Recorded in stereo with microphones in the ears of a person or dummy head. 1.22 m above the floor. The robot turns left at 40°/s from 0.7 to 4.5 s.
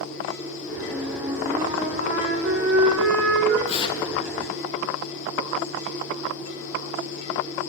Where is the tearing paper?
35° left (ahead or behind), 0.8 m; by 4.1 s 20° left (ahead or behind), 0.8 m.